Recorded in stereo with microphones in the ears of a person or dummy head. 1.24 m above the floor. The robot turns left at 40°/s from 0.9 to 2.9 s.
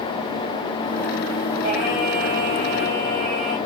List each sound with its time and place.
1.6 s singing: 155° right, 2.5 m; by 3.6 s 155° left, 2.5 m